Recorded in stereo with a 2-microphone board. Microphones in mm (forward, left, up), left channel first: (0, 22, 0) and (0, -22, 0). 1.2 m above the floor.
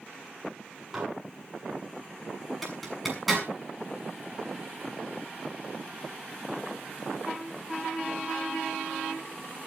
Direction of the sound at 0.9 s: 10° right (ahead or behind).